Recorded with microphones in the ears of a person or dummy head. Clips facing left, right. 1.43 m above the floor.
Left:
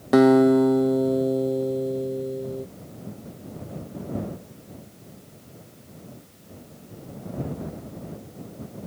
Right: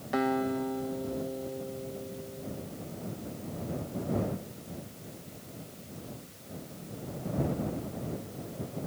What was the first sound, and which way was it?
A guitar, 65° left (ahead or behind).